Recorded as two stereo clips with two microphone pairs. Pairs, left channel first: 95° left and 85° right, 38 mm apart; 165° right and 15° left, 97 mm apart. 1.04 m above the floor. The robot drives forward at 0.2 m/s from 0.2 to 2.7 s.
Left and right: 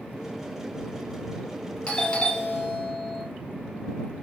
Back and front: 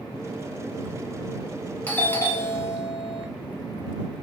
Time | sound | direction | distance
1.9 | a doorbell | 130° left | 0.6 m